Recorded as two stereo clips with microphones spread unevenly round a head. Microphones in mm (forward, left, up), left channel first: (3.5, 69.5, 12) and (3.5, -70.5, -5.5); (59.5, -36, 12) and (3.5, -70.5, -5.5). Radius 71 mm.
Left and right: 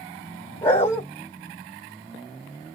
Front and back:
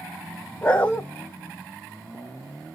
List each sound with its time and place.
0.6 s a dog barking: 40° left, 1.3 m